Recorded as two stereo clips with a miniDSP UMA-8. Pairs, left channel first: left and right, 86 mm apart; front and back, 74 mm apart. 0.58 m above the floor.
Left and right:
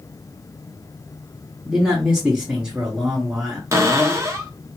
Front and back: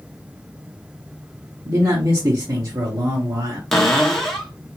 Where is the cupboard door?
85° right, 0.8 m.